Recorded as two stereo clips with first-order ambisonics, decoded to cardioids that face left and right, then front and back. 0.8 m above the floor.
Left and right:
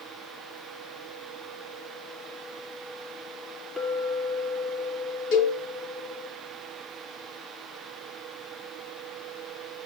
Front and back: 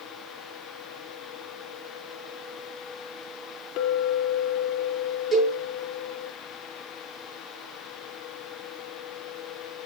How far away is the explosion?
I don't hear an explosion.